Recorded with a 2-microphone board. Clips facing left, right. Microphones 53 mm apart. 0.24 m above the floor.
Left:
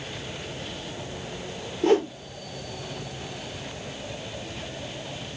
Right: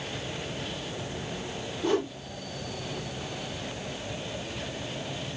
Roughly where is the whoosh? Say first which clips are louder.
Left 6 dB; left.